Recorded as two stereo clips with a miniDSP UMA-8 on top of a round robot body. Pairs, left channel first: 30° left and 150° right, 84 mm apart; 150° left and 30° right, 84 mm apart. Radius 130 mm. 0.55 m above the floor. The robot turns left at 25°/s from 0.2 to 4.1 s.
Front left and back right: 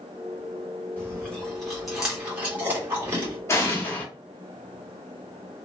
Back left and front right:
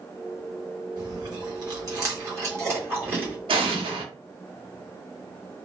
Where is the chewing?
40° right, 1.7 m; by 3.4 s 100° right, 1.7 m.